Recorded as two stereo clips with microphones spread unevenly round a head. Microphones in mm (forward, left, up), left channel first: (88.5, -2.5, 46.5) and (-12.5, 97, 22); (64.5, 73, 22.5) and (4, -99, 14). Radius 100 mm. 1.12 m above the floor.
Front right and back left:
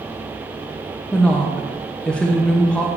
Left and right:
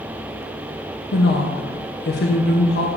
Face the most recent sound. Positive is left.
turn(degrees=40)